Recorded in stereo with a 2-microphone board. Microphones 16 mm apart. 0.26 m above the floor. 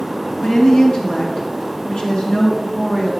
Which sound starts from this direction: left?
A woman speaking, at 0.4 s.